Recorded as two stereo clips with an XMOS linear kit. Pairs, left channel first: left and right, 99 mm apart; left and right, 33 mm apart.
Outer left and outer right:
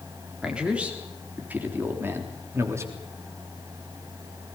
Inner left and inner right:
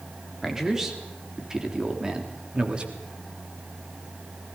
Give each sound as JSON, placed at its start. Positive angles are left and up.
{"t": 0.4, "sound": "a man speaking", "side_deg": -10, "distance_m": 4.0}